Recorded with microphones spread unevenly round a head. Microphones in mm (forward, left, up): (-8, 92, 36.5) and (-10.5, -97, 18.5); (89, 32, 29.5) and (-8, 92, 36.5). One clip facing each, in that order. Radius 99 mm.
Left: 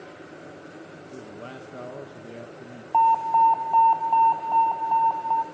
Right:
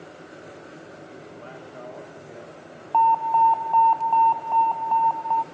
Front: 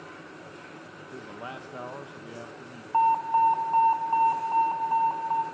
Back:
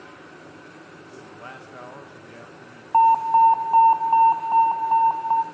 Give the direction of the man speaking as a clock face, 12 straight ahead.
11 o'clock.